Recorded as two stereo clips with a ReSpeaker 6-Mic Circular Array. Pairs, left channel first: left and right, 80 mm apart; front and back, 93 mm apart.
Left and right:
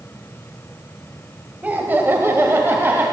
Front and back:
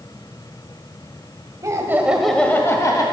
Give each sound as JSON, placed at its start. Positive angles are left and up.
{"t": 1.6, "sound": "laughter", "azimuth_deg": -150, "distance_m": 1.3}